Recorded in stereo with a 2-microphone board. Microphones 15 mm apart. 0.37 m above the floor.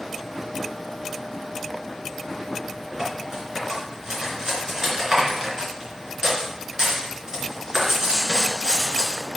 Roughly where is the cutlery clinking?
Right.